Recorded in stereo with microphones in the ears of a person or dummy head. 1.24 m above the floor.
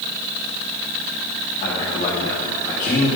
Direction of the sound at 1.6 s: 45° left (ahead or behind).